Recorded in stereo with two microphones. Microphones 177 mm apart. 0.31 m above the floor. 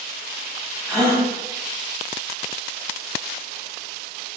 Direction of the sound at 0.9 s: 10° left (ahead or behind).